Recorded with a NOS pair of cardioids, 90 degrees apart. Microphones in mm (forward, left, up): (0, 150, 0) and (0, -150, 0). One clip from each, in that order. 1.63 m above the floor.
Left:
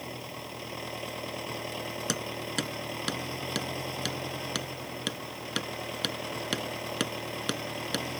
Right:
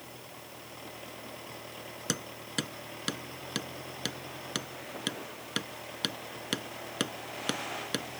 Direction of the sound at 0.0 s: 65° left.